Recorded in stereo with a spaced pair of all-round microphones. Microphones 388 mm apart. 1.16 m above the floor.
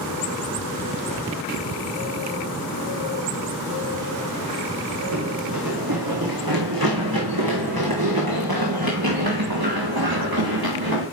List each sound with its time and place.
5.1 s running footsteps: 60° right (ahead or behind), 2 m; by 11.0 s 65° right (ahead or behind), 6 m